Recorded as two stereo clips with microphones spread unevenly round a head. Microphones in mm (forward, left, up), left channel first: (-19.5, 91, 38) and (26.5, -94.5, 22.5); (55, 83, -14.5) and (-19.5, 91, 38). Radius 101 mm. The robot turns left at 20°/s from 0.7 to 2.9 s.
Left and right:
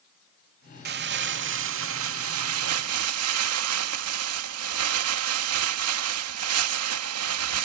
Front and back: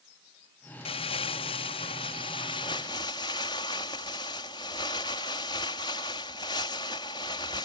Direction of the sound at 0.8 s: 35° right.